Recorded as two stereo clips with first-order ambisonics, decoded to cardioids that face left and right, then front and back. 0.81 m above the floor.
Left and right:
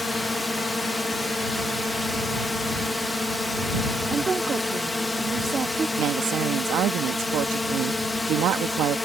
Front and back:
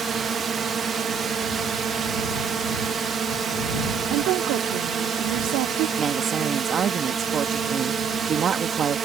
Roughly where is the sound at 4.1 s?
Behind.